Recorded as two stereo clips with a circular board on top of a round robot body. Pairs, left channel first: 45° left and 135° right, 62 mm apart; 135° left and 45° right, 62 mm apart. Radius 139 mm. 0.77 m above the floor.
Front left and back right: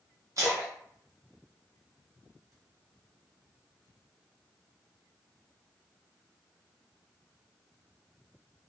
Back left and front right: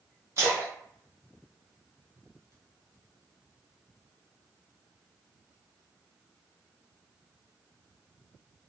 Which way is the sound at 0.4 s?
95° right.